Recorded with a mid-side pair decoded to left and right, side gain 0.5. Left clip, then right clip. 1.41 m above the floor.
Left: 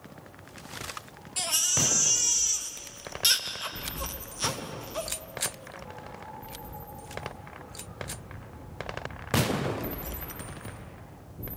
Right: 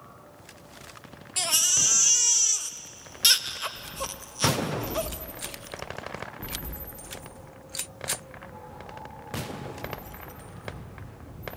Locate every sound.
1.4 s a baby crying: 25° right, 1.5 m